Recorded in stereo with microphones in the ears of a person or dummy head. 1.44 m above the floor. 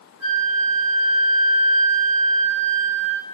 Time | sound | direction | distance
0.2 | a flute | 70° right (ahead or behind) | 2.5 m